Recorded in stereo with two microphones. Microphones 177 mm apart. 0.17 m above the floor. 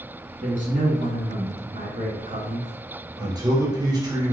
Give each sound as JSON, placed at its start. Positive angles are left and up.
{"t": 0.4, "sound": "a man speaking", "side_deg": -45, "distance_m": 1.8}
{"t": 3.2, "sound": "a man speaking", "side_deg": -20, "distance_m": 2.5}